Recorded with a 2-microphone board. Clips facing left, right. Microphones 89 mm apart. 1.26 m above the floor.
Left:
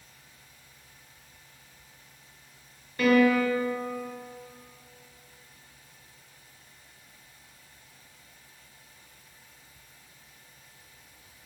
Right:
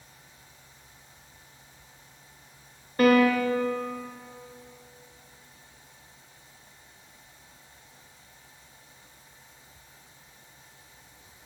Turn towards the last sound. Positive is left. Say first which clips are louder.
# right 1 dB
turn(degrees=-45)  # may be behind; listen again after turning